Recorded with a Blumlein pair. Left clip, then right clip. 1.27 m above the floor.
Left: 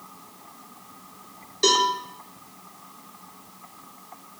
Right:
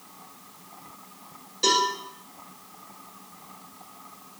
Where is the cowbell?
15° left, 1.8 m.